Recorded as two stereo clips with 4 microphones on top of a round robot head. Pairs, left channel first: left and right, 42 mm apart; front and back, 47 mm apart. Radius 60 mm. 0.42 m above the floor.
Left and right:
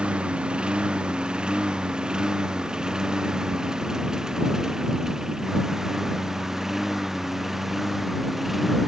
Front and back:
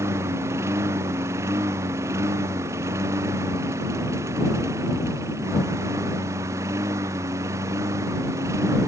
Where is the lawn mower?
155° right; by 8.9 s 175° right.